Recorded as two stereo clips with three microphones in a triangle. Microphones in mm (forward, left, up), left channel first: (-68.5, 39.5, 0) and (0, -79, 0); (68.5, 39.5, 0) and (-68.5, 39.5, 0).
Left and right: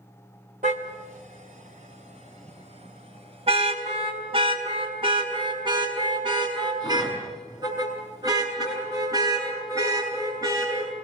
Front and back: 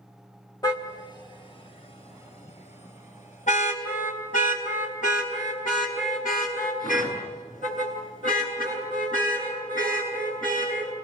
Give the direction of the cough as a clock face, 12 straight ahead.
I don't hear a cough.